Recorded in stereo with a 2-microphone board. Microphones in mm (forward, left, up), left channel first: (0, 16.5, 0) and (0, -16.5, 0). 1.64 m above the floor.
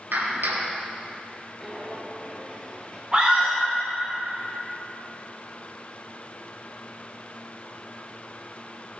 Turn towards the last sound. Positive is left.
turn(degrees=-15)  # may be behind; listen again after turning